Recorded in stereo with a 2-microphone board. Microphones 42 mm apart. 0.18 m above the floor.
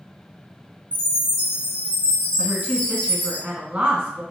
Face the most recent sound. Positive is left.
turn(degrees=-20)  # may be behind; listen again after turning